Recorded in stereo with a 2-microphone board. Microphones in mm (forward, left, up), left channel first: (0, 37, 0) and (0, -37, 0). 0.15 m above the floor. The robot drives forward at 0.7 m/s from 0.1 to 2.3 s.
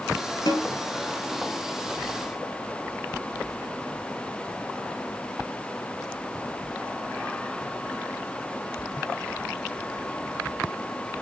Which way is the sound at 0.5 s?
70° left (ahead or behind).